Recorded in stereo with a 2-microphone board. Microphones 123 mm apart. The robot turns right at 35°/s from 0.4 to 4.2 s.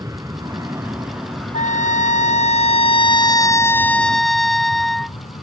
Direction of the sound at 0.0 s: 30° right (ahead or behind).